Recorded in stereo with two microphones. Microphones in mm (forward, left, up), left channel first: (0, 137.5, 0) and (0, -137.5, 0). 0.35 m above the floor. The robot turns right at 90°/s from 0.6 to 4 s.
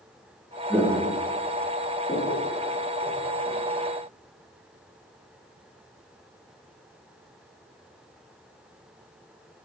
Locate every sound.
0.7 s footsteps: centre (ahead or behind), 0.8 m; by 3.6 s 20° right (ahead or behind), 1.3 m